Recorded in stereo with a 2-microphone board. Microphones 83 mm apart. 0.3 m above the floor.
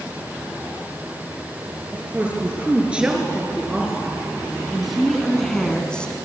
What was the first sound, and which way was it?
A woman speaking, 15° right (ahead or behind).